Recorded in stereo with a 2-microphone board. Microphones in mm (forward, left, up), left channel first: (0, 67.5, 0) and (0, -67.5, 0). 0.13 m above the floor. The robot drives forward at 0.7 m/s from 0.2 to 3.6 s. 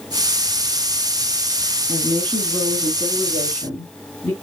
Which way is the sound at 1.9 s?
20° left (ahead or behind).